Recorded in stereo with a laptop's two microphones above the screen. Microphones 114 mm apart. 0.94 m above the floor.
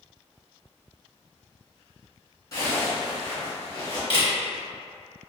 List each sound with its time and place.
2.5 s a zipper: 35° left (ahead or behind), 1.1 m
4.1 s a camera shutter: 55° left (ahead or behind), 0.9 m